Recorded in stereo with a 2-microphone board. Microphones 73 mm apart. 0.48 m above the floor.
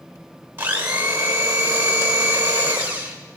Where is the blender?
30° right (ahead or behind), 1.5 m.